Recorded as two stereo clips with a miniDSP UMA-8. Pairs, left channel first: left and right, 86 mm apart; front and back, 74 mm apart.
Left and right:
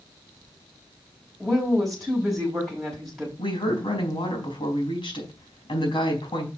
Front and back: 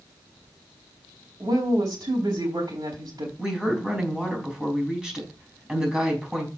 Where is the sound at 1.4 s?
Straight behind, 3.5 m.